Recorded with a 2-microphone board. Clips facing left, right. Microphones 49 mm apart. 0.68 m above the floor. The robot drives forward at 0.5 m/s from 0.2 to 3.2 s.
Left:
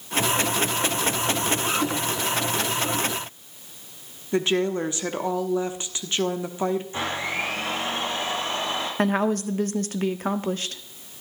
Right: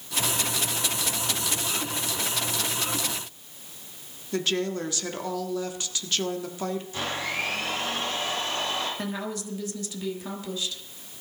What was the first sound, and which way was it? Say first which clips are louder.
A woman speaking: left 5 dB; 25° left (ahead or behind).